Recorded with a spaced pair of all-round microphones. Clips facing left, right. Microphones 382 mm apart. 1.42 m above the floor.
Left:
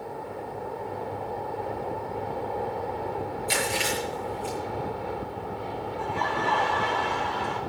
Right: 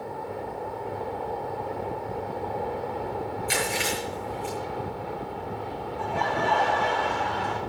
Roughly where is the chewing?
Right.